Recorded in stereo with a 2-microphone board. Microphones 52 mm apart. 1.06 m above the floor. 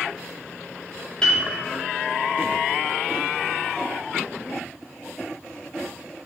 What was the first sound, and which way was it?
A piano, 15° left (ahead or behind).